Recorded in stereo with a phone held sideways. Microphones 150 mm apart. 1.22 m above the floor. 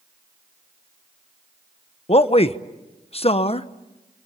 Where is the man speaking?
40° left (ahead or behind), 0.9 m.